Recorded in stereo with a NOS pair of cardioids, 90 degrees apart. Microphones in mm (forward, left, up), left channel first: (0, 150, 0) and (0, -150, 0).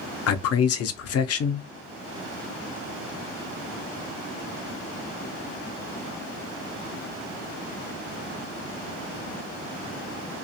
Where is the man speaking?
55° left, 0.6 m.